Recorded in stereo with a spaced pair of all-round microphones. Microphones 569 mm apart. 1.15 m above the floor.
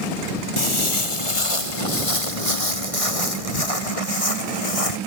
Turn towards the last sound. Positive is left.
turn(degrees=75)  # may be behind; listen again after turning